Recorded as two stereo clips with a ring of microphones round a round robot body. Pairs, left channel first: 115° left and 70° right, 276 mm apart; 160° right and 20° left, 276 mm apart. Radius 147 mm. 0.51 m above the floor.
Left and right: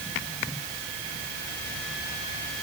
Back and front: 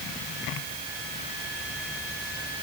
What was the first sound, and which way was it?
Only background noise.